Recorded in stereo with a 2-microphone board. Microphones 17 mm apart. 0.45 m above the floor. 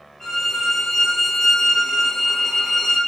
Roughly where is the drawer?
I don't hear a drawer.